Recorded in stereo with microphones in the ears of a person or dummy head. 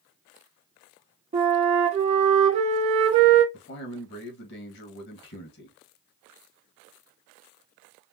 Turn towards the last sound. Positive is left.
turn(degrees=55)  # may be behind; listen again after turning